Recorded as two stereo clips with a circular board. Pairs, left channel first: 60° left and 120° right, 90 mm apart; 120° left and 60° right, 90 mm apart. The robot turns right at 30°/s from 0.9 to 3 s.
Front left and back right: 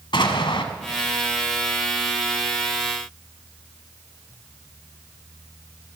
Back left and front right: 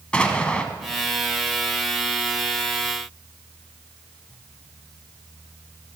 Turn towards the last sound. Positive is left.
turn(degrees=105)